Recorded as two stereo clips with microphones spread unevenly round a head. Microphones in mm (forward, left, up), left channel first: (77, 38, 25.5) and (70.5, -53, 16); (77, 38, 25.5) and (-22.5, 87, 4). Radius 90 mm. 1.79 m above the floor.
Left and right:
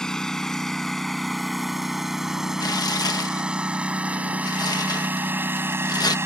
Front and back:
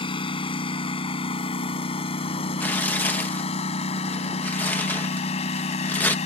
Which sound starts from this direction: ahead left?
Tearing paper, at 2.6 s.